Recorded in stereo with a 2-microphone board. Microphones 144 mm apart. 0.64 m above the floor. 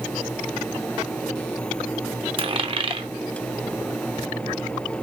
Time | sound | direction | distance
2.4 | a dropped coin | 40° right (ahead or behind) | 0.8 m